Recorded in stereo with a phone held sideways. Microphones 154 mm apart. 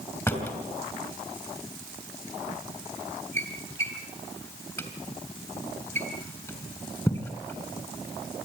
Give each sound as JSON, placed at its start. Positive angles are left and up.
{"t": 0.3, "sound": "a drawer", "side_deg": 15, "distance_m": 4.0}